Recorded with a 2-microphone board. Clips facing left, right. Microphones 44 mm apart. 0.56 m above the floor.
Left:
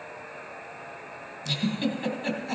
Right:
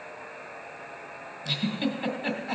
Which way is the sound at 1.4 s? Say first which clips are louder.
Left 1 dB; 10° right (ahead or behind).